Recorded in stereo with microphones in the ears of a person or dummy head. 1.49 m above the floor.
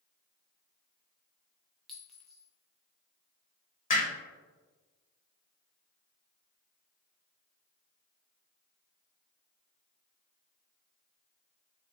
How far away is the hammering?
About 1.2 m.